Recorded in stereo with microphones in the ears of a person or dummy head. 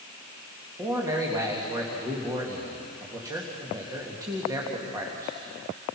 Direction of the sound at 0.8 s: 15° right (ahead or behind).